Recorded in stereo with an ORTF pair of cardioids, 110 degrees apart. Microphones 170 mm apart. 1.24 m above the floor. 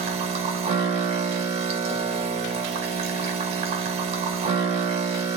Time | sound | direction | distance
0.0 | a machine running | 40° right | 1.2 m